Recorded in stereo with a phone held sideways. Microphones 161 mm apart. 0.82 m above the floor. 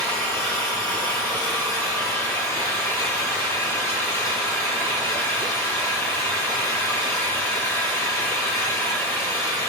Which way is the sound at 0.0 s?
20° left (ahead or behind).